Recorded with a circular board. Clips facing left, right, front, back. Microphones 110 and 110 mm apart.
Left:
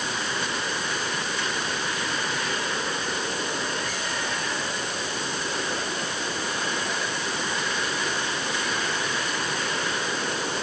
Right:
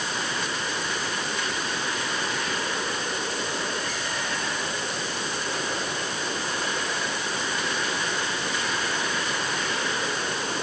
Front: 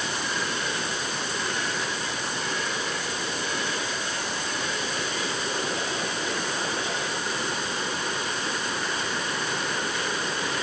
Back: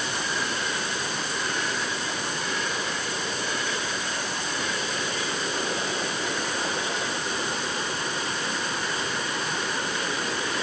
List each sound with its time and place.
Only background noise.